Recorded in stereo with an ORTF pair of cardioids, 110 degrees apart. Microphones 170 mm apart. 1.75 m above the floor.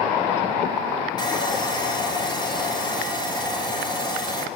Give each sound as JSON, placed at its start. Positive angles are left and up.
{"t": 1.2, "sound": "sawing", "azimuth_deg": 25, "distance_m": 6.5}